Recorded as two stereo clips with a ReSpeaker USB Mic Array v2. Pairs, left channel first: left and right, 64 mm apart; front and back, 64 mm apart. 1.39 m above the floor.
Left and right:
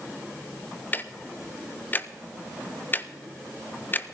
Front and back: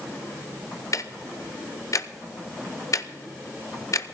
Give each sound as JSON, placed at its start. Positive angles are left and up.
{"t": 0.9, "sound": "ticking", "azimuth_deg": 30, "distance_m": 0.7}